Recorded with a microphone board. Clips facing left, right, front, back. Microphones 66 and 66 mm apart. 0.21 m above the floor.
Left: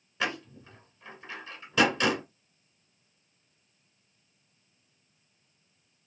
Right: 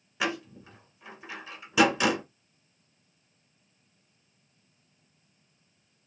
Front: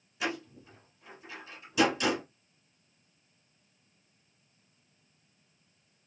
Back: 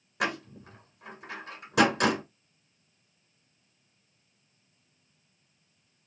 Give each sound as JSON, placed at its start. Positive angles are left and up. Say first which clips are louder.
{"t": 0.2, "sound": "a door slam", "louder": "right 1 dB, back 4 dB", "azimuth_deg": -170, "distance_m": 1.5}